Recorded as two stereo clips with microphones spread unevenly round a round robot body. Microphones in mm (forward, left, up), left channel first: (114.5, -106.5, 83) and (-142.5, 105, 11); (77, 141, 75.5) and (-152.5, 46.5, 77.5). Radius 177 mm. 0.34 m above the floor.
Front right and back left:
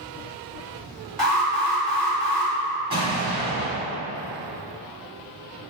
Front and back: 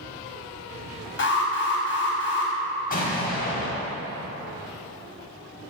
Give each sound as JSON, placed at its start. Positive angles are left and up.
{"t": 1.2, "sound": "an alarm", "azimuth_deg": 55, "distance_m": 3.5}
{"t": 2.9, "sound": "an explosion", "azimuth_deg": 70, "distance_m": 3.0}